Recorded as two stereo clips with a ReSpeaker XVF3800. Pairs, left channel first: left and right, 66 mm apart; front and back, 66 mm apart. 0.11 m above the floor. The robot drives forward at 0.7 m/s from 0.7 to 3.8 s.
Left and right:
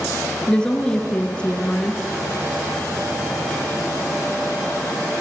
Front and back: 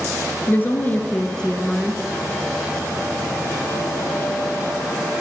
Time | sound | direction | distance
0.5 | a woman speaking | 25° left | 1.4 m